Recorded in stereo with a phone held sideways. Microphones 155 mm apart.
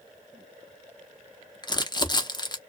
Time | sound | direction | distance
1.6 | crumpling | 30° left (ahead or behind) | 0.7 m